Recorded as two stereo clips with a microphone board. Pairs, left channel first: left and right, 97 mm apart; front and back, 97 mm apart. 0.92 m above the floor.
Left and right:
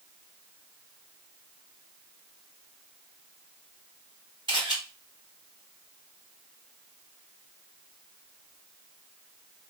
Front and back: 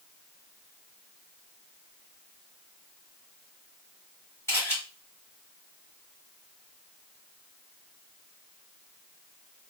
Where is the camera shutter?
65° right, 2 m.